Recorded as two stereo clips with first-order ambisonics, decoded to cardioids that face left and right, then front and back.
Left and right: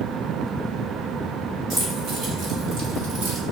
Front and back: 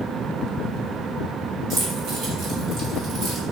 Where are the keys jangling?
140° right, 4 m; by 3.4 s 125° right, 3.5 m.